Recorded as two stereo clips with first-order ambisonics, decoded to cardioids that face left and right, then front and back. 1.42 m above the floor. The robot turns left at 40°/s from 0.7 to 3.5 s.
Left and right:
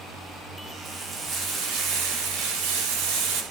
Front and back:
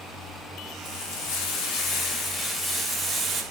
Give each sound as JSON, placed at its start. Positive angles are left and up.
{"t": 0.8, "sound": "frying", "azimuth_deg": -15, "distance_m": 6.5}